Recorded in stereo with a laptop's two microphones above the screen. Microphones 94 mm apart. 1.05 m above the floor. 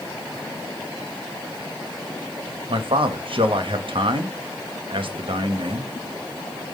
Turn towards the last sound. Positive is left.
turn(degrees=-65)  # may be behind; listen again after turning